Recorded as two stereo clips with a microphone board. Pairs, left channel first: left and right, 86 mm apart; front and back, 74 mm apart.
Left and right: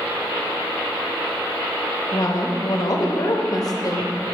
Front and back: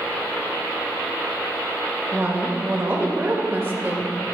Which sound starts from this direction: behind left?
A woman speaking, at 2.1 s.